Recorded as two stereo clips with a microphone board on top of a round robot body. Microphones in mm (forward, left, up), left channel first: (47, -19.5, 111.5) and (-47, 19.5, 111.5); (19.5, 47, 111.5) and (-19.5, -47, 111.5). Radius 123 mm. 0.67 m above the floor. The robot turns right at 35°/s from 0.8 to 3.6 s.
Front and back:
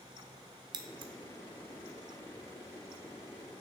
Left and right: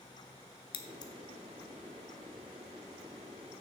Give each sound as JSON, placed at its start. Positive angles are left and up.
{"t": 0.7, "sound": "scissors", "azimuth_deg": 110, "distance_m": 0.7}